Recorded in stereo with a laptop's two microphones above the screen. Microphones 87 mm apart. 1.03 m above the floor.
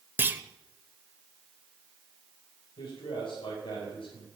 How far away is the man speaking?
About 6 m.